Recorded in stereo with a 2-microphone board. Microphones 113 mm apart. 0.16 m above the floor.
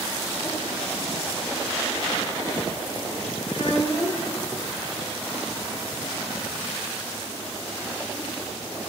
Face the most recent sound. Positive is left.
turn(degrees=60)  # may be behind; listen again after turning